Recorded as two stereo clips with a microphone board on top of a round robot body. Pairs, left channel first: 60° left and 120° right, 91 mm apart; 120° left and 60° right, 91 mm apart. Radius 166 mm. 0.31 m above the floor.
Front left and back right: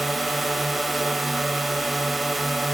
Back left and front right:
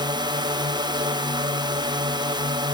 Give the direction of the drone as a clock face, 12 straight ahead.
1 o'clock.